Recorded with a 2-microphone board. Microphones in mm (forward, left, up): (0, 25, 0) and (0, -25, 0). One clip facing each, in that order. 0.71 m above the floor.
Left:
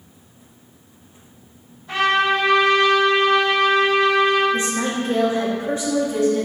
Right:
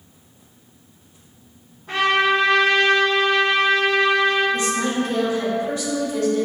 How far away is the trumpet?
About 1.7 m.